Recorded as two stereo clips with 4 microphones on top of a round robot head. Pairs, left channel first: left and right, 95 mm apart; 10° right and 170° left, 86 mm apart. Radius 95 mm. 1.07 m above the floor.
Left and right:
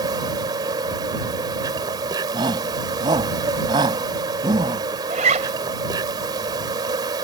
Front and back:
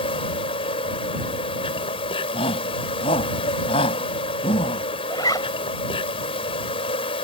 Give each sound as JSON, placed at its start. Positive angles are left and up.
{"t": 0.0, "sound": "an insect", "azimuth_deg": -35}
{"t": 2.3, "sound": "a shout", "azimuth_deg": -35}
{"t": 5.1, "sound": "a zipper", "azimuth_deg": -75}